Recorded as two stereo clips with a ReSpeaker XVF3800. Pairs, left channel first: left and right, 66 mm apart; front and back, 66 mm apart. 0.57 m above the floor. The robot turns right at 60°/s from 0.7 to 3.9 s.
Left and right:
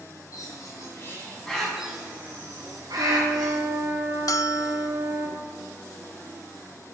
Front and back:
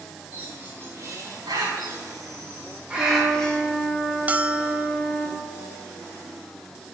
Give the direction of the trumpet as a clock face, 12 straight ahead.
4 o'clock.